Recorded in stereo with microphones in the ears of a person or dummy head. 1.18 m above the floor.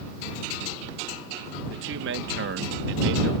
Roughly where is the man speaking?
Right.